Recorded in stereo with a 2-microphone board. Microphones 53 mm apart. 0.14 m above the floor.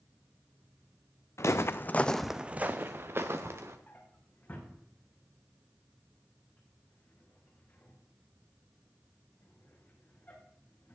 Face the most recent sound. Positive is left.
turn(degrees=30)  # may be behind; listen again after turning